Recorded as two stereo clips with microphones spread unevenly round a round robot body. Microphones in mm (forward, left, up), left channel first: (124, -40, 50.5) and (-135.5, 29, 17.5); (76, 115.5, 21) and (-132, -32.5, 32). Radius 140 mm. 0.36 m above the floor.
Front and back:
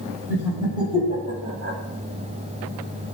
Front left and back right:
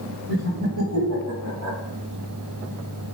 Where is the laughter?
110° right, 2 m; by 1.8 s 150° right, 2 m.